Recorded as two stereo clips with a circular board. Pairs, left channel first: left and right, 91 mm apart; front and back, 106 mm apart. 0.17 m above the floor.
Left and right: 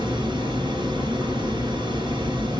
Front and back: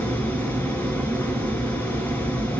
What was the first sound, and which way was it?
Running water, 65° right.